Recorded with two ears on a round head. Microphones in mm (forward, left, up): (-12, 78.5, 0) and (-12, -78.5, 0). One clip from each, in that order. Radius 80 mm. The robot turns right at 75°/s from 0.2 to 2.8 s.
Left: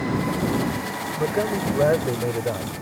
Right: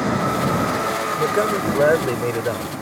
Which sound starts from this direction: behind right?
A man speaking, at 1.2 s.